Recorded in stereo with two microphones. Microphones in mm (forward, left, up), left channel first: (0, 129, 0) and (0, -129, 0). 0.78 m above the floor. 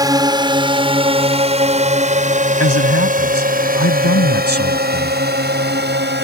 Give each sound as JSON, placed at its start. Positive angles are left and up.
{"t": 0.0, "sound": "a drone", "side_deg": -15}
{"t": 2.6, "sound": "a man speaking", "side_deg": 75}